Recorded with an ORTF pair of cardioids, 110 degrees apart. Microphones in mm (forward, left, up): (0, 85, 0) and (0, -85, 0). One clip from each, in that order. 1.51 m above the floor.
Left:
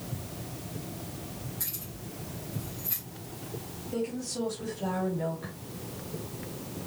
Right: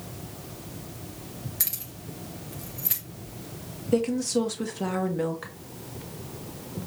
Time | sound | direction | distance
1.6 | keys jangling | 65° right | 2.0 m
3.9 | a woman speaking | 65° right | 1.5 m